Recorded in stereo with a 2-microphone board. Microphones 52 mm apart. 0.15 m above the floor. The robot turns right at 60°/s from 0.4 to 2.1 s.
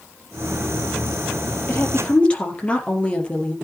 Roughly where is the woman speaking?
Left.